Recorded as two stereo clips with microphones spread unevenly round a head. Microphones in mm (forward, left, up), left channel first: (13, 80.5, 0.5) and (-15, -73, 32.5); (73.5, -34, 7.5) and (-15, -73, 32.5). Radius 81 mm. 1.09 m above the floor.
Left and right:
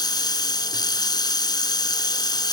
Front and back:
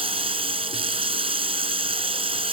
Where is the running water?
145° left.